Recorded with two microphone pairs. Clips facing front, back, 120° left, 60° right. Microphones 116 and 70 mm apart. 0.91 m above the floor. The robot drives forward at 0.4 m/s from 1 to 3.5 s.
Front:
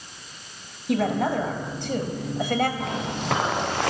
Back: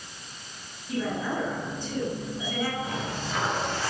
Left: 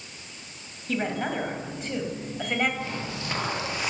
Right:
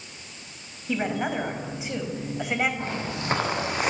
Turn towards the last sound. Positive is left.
turn(degrees=-15)